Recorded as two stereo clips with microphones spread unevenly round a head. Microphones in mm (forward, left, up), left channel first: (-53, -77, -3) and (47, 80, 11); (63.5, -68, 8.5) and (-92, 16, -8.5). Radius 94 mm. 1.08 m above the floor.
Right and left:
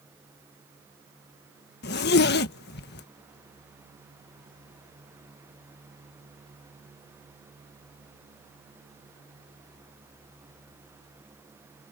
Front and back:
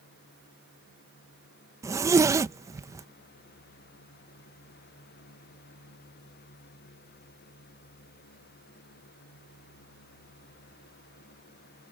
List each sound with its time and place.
1.8 s a zipper: 140° right